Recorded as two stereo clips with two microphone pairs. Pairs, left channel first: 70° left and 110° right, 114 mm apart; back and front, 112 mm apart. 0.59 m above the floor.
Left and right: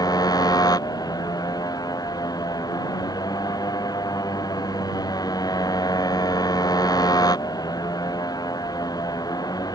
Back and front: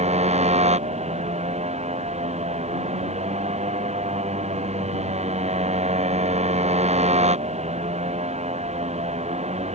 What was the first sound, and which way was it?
A motorcycle, 15° left.